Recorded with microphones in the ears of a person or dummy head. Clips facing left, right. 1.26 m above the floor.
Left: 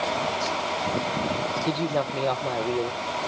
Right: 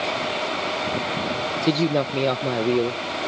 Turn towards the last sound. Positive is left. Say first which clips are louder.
# right 7 dB
turn(degrees=-35)  # may be behind; listen again after turning